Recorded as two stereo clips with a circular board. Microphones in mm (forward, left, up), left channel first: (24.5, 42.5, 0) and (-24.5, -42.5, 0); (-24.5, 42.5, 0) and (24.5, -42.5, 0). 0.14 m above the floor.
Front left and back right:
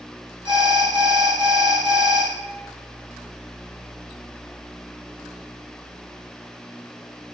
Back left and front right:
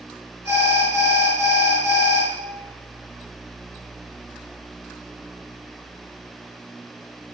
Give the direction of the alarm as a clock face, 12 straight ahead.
4 o'clock.